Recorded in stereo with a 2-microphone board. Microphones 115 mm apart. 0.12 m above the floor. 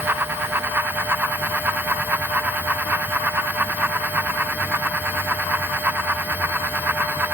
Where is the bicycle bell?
I don't hear a bicycle bell.